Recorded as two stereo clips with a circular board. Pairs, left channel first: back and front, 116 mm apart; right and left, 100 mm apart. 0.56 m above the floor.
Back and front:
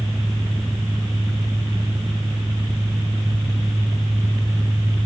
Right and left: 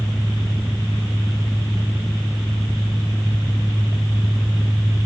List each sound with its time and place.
Only background noise.